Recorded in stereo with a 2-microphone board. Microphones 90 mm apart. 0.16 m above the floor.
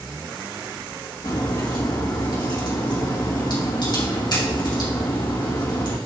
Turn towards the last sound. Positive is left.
turn(degrees=55)  # may be behind; listen again after turning